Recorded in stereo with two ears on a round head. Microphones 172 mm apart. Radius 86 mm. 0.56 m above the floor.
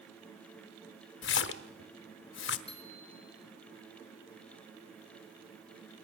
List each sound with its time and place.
1.2 s a splash: 65° left (ahead or behind), 1.4 m
2.7 s a bicycle bell: 30° left (ahead or behind), 5.5 m